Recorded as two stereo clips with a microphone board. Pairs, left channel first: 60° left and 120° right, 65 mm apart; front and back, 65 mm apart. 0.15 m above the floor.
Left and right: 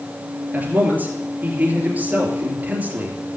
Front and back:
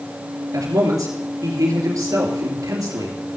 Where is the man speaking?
Straight behind, 2.5 m.